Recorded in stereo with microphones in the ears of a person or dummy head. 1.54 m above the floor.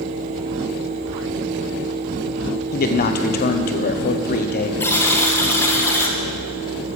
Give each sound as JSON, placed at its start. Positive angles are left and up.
{"t": 2.7, "sound": "a man speaking", "side_deg": 50, "distance_m": 1.1}
{"t": 4.8, "sound": "a buzzer", "side_deg": 15, "distance_m": 1.4}